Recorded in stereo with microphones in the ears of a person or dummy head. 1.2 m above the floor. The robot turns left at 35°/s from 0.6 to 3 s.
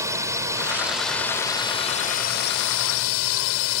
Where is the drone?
165° right; by 3.8 s 110° left.